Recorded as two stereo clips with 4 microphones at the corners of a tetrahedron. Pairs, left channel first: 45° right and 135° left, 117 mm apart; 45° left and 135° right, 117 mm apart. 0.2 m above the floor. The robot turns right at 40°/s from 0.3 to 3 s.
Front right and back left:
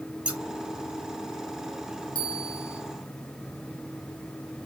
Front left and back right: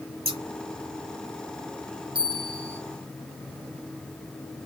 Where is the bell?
90° right, 3 m; by 2.8 s 65° right, 3 m.